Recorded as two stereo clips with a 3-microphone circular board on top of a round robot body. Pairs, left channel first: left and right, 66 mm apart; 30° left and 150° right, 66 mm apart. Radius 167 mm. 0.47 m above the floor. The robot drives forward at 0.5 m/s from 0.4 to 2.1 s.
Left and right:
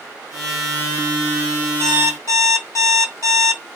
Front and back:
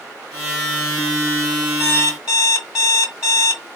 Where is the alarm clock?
125° left, 2 m; by 3.6 s 130° left, 2.5 m.